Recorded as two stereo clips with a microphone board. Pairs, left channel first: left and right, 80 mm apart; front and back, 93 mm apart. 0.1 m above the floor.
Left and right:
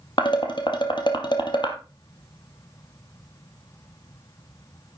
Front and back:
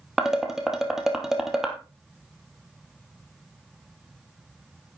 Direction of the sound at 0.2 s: 95° left.